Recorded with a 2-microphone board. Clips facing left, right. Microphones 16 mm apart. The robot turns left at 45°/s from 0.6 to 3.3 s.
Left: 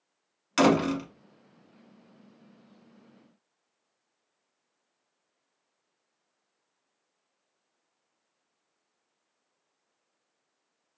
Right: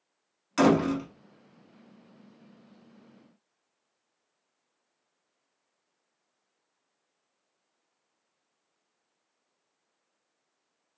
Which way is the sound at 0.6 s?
35° left (ahead or behind).